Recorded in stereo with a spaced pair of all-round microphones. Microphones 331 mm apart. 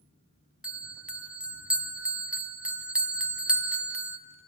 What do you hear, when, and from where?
0.6 s a bell: 5° right (ahead or behind), 1.0 m